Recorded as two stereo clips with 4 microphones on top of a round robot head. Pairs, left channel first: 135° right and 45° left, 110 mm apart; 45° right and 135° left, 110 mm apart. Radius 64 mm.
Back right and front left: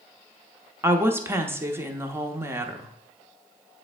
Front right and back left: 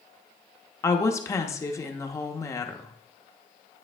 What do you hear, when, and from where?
0.8 s a woman speaking: 5° right, 0.9 m